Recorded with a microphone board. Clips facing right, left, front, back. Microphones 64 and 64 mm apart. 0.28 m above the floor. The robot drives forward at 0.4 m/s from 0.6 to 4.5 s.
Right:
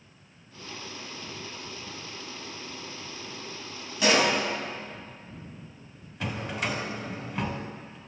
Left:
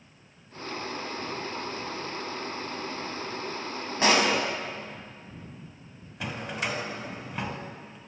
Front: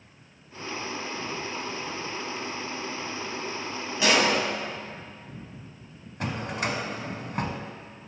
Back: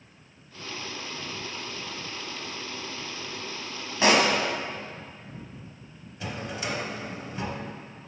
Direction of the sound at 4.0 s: 130° left.